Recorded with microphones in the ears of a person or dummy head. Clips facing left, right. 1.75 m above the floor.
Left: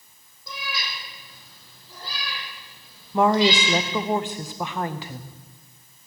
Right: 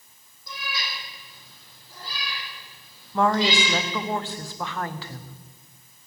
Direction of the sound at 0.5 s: 70° left (ahead or behind).